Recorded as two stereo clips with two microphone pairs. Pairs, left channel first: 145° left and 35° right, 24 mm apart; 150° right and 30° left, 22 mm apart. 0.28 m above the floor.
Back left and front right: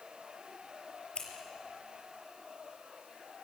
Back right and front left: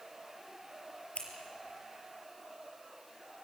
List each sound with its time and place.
1.1 s scissors: 175° right, 5 m